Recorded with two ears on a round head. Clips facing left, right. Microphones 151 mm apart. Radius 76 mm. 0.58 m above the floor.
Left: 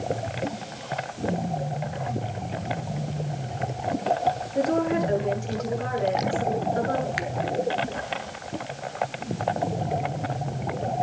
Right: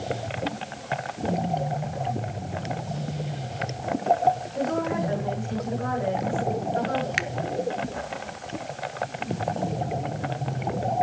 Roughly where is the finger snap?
Right.